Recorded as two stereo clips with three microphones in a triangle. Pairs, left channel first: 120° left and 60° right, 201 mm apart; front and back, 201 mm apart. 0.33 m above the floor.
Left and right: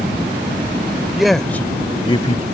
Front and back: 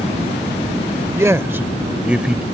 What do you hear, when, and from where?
1.1 s a man speaking: 140° right; by 2.4 s 95° left